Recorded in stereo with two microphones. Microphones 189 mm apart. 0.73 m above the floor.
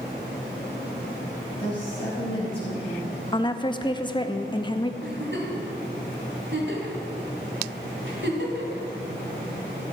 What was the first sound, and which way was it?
A woman speaking, 30° left (ahead or behind).